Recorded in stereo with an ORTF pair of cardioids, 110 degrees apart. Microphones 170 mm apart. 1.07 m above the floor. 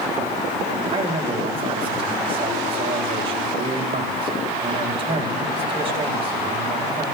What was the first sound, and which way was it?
A man speaking, 35° right.